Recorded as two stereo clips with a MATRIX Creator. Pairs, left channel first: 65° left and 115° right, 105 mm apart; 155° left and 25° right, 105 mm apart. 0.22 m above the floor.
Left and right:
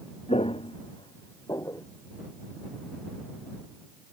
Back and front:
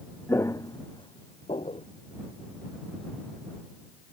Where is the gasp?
No gasp in this recording.